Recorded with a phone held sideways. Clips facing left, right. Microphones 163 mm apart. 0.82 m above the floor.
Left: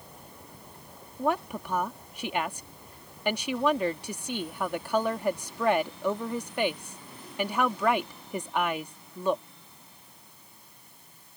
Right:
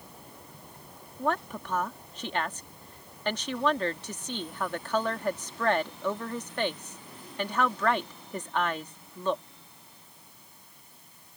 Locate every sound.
1.2 s a woman speaking: 10° left (ahead or behind)